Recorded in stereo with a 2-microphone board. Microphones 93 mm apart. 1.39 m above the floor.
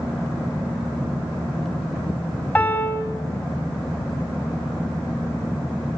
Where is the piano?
15° left (ahead or behind), 4 m.